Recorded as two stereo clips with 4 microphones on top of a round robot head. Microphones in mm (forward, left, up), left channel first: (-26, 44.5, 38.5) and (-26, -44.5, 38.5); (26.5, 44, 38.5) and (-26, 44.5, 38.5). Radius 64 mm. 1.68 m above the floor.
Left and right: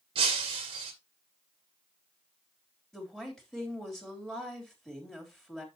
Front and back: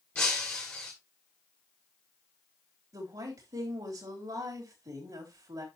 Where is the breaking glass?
75° right, 1.5 m.